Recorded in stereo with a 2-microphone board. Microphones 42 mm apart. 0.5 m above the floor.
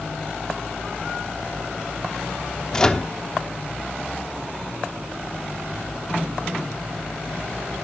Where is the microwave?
15° left (ahead or behind), 1.0 m.